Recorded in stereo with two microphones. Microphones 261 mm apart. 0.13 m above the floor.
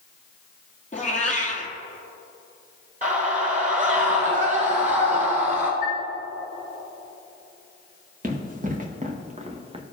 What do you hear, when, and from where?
0.9 s a cat meowing: 30° left (ahead or behind), 1.8 m
3.0 s a scream: 30° right (ahead or behind), 1.6 m
5.8 s a chime: 75° right (ahead or behind), 3 m
8.2 s running footsteps: 35° right (ahead or behind), 2 m; by 9.8 s 20° right (ahead or behind), 1.1 m